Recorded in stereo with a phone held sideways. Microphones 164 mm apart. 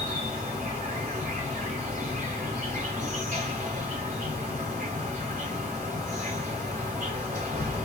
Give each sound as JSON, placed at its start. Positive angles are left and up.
{"t": 0.0, "sound": "an insect", "side_deg": -60, "distance_m": 2.5}